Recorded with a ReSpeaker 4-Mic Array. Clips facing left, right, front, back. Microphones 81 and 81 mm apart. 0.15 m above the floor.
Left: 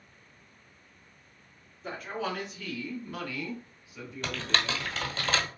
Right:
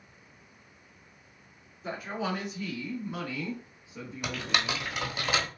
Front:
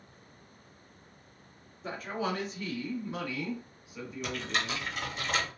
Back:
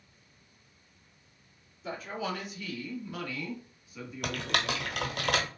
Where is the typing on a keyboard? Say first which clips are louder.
Even, back 2 dB; 170° right, 0.9 m.